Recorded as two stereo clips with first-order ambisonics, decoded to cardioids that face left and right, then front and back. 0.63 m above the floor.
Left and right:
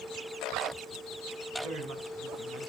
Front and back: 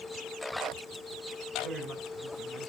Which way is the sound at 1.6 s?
110° right.